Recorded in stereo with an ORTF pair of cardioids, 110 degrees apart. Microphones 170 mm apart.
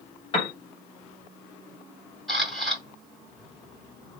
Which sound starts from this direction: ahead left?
A piano, at 0.3 s.